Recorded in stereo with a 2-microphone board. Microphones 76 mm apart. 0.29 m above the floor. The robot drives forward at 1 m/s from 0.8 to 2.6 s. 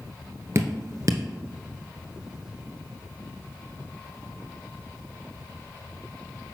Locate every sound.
0.6 s dripping: 40° right (ahead or behind), 1.5 m; by 1.2 s 55° right (ahead or behind), 1.2 m